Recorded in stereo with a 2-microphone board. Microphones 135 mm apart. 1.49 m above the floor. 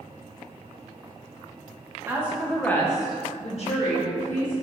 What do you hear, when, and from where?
2.1 s a woman speaking: 15° right (ahead or behind), 0.8 m; by 4.5 s 70° left (ahead or behind), 1.2 m